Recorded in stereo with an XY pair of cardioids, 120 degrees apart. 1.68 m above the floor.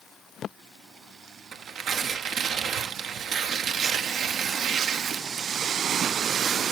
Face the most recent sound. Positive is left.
turn(degrees=-60)